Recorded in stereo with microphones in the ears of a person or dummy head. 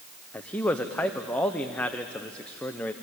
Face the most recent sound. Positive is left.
turn(degrees=10)  # may be behind; listen again after turning